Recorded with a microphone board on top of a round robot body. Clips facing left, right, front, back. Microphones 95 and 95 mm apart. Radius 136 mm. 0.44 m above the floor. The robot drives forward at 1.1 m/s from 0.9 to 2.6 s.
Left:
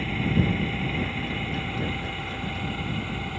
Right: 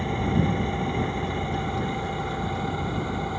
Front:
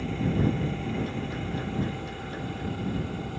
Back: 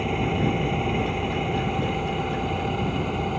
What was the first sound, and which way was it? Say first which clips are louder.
An engine running: right 1 dB, back 3 dB; 160° right.